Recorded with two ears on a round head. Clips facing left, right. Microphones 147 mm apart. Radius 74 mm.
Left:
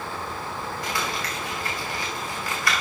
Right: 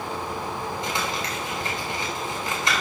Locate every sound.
0.8 s crumpling: 20° right (ahead or behind), 5 m